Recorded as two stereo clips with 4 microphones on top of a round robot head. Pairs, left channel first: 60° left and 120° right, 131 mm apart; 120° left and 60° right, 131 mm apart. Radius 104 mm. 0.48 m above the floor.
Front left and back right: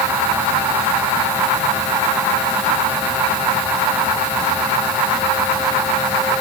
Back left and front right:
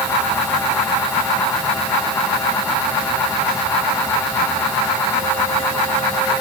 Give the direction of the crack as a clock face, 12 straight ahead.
No crack in this recording.